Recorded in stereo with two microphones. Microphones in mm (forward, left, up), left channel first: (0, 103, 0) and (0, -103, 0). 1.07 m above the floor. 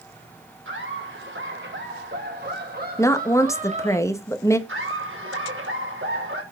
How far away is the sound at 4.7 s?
About 4.5 m.